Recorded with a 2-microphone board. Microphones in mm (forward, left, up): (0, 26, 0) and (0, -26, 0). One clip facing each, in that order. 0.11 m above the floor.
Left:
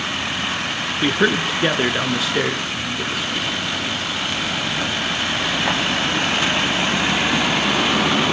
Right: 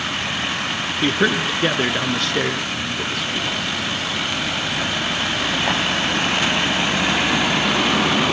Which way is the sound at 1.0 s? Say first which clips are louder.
Left 1 dB; 5° left (ahead or behind).